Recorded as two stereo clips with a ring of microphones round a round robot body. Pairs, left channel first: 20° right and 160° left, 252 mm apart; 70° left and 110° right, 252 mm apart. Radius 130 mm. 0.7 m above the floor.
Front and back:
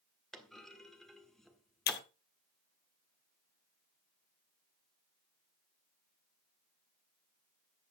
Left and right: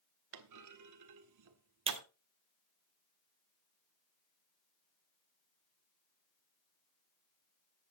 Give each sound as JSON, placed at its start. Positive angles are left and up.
{"t": 0.3, "sound": "a clunk", "azimuth_deg": -110, "distance_m": 1.5}
{"t": 1.9, "sound": "breaking glass", "azimuth_deg": -55, "distance_m": 0.9}